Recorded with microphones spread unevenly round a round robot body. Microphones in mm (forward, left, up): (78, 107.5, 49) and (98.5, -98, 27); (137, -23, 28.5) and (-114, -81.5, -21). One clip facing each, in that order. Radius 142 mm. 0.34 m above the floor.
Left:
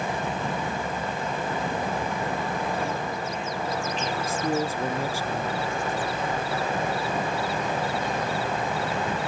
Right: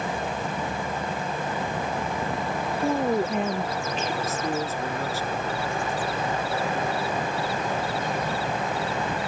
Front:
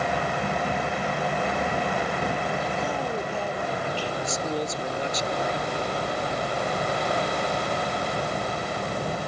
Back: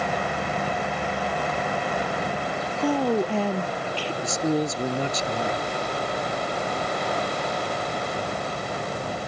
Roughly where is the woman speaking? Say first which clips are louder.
Right 7 dB, back 7 dB; behind right.